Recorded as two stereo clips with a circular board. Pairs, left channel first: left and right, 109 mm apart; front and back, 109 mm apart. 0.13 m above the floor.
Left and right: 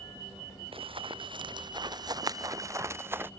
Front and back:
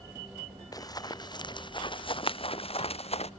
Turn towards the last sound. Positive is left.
turn(degrees=-20)